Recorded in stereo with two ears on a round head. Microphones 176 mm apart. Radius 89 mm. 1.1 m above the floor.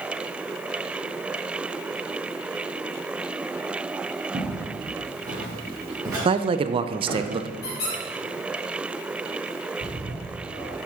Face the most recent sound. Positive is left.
turn(degrees=-75)  # may be behind; listen again after turning